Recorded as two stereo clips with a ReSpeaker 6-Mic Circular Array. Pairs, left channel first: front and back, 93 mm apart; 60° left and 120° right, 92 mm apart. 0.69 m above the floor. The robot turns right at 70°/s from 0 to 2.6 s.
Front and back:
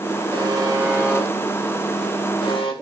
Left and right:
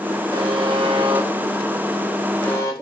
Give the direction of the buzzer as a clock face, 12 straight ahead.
5 o'clock.